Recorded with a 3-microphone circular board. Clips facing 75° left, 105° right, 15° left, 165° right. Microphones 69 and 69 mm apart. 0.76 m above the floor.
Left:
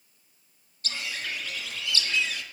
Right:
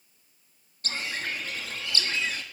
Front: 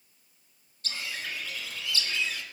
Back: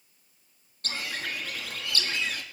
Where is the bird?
150° right, 1.0 m.